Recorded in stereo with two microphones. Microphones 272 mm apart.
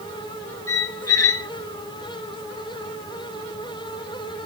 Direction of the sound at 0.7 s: 60° left (ahead or behind).